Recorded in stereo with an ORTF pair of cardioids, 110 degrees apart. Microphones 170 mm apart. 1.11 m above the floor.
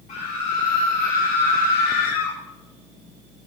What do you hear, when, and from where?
0.1 s a scream: 45° left, 2.5 m; by 2.4 s 70° left, 1.5 m